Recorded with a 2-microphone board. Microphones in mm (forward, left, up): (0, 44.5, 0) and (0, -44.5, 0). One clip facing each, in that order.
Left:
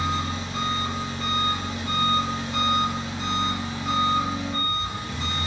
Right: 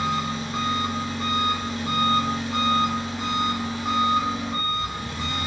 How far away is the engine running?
About 1.8 m.